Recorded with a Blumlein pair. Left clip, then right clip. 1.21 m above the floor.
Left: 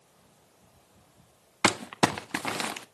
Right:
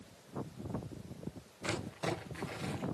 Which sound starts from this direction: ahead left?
Crumpling, at 1.6 s.